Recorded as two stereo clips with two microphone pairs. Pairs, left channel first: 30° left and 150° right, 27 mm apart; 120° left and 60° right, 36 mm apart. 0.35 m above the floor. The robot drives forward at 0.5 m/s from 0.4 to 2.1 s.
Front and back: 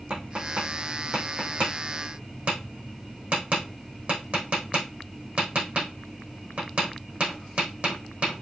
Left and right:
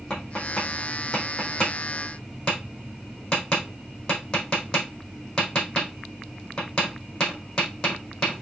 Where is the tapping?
170° right, 5 m.